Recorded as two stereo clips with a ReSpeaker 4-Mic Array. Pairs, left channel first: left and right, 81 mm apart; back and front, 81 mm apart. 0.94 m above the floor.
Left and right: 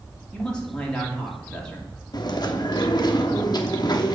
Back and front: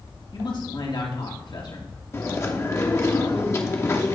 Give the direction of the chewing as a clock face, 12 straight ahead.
8 o'clock.